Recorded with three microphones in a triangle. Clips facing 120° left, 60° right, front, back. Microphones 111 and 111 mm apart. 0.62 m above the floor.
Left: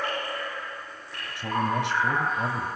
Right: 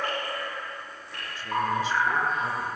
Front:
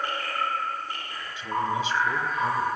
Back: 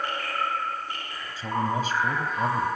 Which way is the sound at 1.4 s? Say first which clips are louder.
Left 1 dB, back 1 dB; 130° left.